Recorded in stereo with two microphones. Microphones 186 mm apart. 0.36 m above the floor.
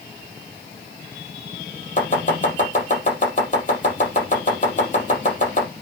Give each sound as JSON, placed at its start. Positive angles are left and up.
{"t": 2.0, "sound": "chopping", "side_deg": 45, "distance_m": 4.5}